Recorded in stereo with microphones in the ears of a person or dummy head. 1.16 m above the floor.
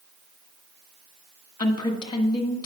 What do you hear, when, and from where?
1.6 s a woman speaking: 25° left (ahead or behind), 1.2 m